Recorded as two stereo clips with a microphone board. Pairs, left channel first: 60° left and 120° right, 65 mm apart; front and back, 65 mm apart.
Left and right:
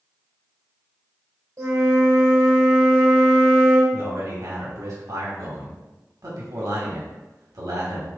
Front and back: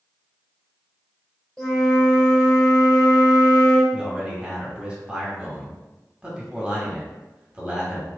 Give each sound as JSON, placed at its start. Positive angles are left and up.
{"t": 1.6, "sound": "a flute", "azimuth_deg": -80, "distance_m": 1.6}
{"t": 3.9, "sound": "a man speaking", "azimuth_deg": -110, "distance_m": 1.5}